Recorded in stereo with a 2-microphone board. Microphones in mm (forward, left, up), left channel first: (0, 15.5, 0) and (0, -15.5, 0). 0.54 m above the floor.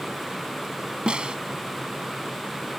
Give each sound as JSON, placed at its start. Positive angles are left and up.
{"t": 1.1, "sound": "a snare drum", "side_deg": -35}